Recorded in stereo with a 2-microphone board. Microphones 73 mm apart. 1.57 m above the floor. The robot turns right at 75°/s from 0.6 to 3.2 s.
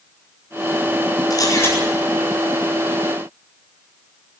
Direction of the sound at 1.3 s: 125° left.